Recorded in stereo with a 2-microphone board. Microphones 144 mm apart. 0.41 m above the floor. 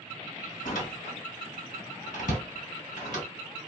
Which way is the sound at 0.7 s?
65° left (ahead or behind).